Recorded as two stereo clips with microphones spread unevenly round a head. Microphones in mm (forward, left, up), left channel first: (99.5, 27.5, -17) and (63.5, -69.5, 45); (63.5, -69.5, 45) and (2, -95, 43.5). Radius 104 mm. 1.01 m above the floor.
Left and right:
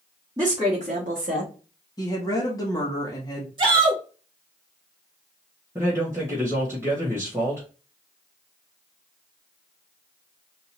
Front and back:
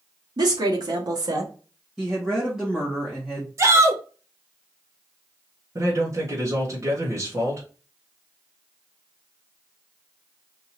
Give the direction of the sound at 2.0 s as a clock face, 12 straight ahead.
8 o'clock.